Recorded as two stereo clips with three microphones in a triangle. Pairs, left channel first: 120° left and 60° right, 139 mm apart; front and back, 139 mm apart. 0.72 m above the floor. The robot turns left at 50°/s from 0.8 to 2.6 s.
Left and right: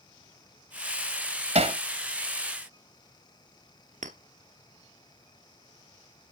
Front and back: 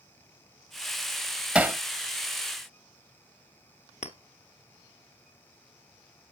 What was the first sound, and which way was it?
Hammering, 100° right.